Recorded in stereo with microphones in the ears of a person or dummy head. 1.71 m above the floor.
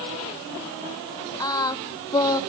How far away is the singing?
About 1.0 m.